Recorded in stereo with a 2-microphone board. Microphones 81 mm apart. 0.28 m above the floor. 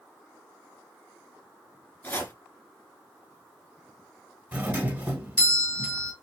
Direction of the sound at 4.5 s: 20° right (ahead or behind).